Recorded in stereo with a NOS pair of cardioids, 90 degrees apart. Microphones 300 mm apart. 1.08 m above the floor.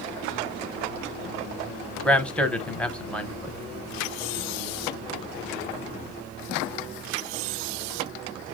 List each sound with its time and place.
2.0 s a man speaking: 5° left, 0.6 m